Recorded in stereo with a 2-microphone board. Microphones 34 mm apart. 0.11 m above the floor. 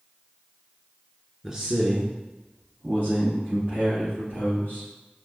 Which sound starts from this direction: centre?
A man speaking, at 1.4 s.